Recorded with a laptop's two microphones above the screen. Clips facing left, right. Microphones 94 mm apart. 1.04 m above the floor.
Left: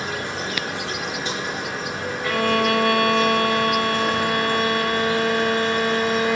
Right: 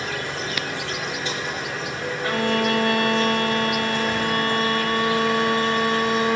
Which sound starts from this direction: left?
An insect, at 0.0 s.